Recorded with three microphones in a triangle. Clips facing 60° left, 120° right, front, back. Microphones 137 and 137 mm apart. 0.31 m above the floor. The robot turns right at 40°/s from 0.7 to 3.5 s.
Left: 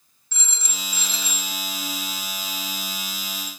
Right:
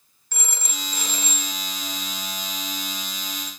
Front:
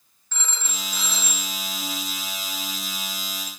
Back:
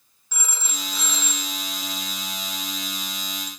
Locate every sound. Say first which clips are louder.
0.3 s a phone ringing: right 3 dB, even; 100° right, 1.6 m; by 3.5 s 10° left, 1.6 m